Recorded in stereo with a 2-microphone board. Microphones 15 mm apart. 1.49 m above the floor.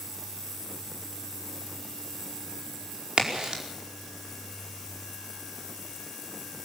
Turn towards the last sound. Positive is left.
turn(degrees=-65)  # may be behind; listen again after turning